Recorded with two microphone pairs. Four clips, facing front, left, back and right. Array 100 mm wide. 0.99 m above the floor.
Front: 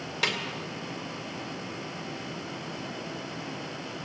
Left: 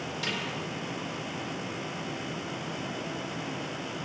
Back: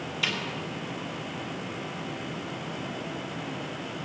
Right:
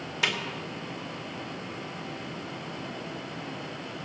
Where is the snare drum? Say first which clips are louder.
Right 6 dB, front 3 dB; 25° right, 2.5 m.